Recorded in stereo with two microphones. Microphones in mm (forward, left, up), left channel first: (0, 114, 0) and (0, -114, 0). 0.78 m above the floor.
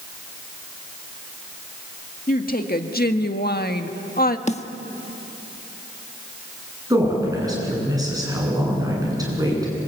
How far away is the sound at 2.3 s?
About 1.8 m.